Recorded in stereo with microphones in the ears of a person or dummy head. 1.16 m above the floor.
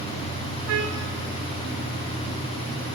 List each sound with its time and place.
0.7 s a trumpet: 85° right, 4.5 m